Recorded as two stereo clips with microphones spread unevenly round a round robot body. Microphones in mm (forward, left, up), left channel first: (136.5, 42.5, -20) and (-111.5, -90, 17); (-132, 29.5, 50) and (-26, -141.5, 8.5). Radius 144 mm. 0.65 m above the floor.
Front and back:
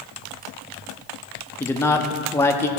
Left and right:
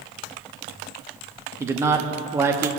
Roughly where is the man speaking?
Ahead right.